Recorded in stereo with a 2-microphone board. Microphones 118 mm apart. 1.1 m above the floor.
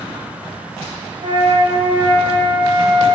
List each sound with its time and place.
1.2 s a flute: 50° right (ahead or behind), 0.8 m